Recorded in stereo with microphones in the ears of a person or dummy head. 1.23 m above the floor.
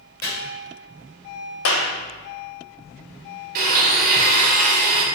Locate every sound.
0.2 s chopping: 20° left (ahead or behind), 1.8 m
1.6 s a clap: 75° left (ahead or behind), 0.9 m
3.5 s a blender: 50° right (ahead or behind), 1.1 m